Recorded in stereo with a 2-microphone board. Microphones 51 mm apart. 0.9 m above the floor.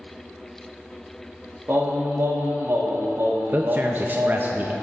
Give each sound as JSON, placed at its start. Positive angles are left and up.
{"t": 1.7, "sound": "singing", "side_deg": -60, "distance_m": 1.7}
{"t": 3.5, "sound": "a man speaking", "side_deg": -40, "distance_m": 0.5}